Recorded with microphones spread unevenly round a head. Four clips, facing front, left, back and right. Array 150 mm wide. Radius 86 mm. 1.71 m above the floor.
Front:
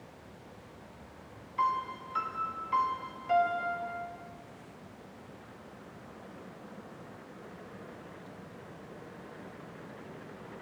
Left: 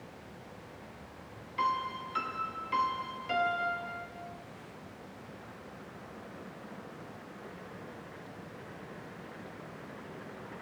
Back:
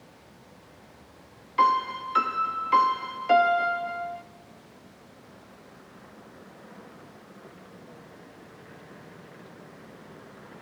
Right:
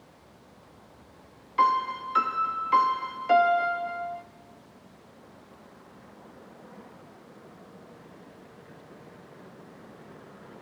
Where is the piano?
160° right, 1.0 m.